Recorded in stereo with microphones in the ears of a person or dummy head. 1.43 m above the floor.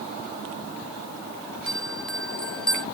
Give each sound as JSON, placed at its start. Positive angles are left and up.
{"t": 1.7, "sound": "a bell", "side_deg": 0}